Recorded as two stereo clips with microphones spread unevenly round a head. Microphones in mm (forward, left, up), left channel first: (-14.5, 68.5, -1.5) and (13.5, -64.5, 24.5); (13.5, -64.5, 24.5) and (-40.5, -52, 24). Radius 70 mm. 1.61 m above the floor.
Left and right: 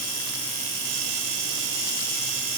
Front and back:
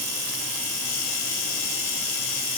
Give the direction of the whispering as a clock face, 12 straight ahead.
No whispering in this recording.